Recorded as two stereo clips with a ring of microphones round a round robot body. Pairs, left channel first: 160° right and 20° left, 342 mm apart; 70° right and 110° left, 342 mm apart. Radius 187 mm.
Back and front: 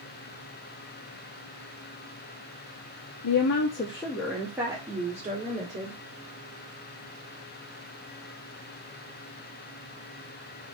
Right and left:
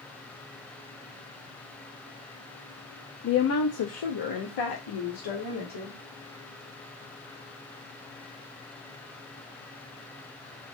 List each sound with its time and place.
3.2 s a woman speaking: 125° right, 0.7 m; by 6.0 s 45° right, 2.0 m